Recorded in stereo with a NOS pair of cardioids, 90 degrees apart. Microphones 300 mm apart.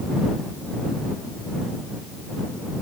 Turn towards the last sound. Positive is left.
No sound to turn to.